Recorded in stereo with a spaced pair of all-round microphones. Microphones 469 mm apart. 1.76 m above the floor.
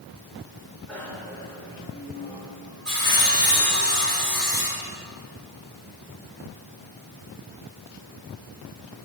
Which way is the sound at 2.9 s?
45° left (ahead or behind).